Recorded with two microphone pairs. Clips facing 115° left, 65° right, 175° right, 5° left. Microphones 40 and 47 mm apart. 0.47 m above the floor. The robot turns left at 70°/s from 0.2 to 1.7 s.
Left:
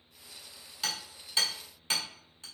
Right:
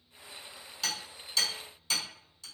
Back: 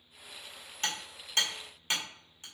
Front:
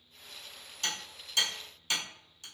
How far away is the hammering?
About 1.2 m.